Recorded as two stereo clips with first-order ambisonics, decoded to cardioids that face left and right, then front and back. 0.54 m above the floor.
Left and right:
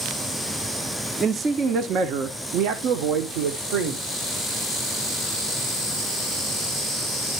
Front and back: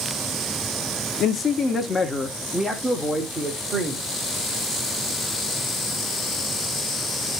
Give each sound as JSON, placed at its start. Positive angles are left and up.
{"t": 1.2, "sound": "a man speaking", "azimuth_deg": -30, "distance_m": 0.8}